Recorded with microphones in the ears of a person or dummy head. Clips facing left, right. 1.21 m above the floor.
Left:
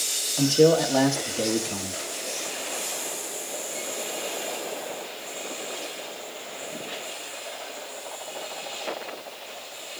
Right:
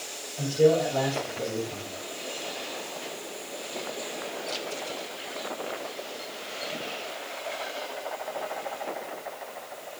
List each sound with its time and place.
0.4 s a man speaking: 75° left (ahead or behind), 1.7 m